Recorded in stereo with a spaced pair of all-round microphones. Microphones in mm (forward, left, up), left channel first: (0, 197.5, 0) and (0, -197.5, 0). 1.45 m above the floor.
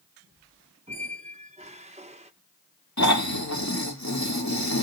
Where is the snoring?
45° left (ahead or behind), 2 m.